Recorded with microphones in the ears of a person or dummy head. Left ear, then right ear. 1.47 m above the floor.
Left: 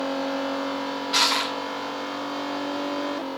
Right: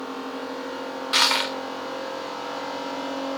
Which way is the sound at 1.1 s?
25° right (ahead or behind).